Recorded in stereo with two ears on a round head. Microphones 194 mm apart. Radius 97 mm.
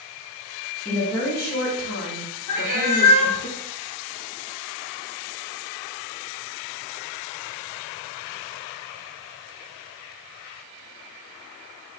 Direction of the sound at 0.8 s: 30° left (ahead or behind).